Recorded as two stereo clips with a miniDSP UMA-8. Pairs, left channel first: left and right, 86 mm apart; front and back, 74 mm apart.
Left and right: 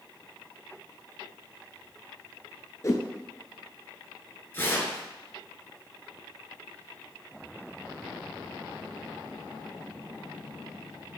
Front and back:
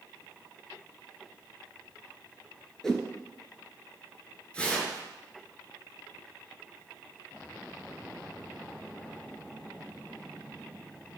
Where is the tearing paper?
60° left, 1.9 m.